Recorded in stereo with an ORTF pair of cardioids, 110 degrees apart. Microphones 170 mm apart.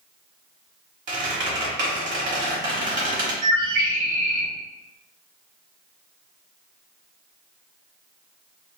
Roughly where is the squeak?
Ahead right.